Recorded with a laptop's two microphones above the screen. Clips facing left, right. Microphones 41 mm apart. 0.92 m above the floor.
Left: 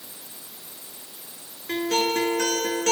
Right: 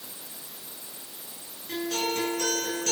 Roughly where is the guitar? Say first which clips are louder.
Left 6 dB; left.